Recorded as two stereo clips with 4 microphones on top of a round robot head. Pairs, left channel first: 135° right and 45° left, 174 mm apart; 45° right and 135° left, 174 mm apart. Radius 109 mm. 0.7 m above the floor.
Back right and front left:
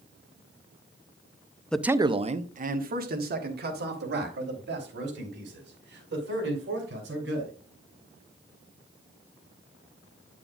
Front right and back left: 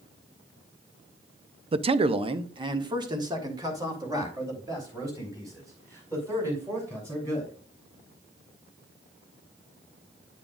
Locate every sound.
1.7 s a man speaking: 145° left, 0.6 m; by 7.5 s 60° left, 6 m